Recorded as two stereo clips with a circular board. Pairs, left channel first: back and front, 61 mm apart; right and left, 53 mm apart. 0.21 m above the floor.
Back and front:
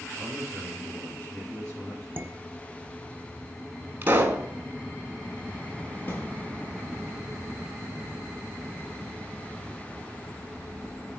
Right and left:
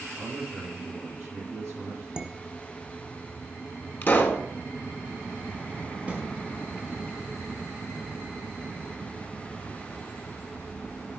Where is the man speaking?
120° left, 3.5 m.